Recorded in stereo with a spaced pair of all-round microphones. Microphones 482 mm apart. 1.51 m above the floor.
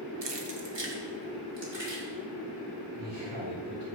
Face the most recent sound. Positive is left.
turn(degrees=-85)